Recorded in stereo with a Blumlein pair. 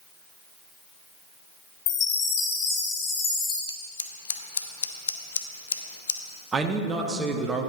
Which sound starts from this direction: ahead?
A man speaking, at 6.5 s.